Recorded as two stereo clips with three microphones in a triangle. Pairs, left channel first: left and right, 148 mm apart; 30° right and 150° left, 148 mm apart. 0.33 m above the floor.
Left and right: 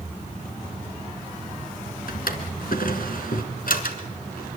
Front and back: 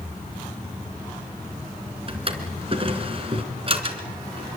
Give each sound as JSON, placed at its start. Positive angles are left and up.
{"t": 2.1, "sound": "a drawer", "azimuth_deg": 100, "distance_m": 3.0}